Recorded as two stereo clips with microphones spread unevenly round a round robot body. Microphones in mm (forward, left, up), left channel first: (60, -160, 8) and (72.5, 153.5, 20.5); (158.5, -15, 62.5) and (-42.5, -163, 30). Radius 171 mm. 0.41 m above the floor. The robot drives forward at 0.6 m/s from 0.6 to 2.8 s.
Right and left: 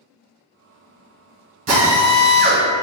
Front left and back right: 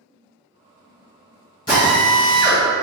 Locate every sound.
1.7 s a drill: 110° left, 1.7 m; by 2.6 s 135° left, 1.9 m